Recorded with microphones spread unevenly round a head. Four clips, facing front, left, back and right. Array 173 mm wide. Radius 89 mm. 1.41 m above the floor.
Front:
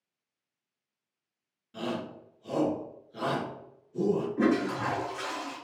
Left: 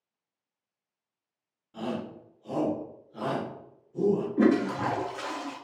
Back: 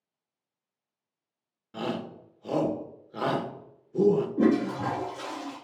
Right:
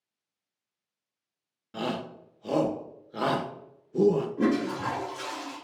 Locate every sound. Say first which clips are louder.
1.7 s a shout: right 2 dB, back 2 dB; 110° right, 1.0 m
4.4 s a toilet flushing: left 3 dB, back 2 dB; 100° left, 0.9 m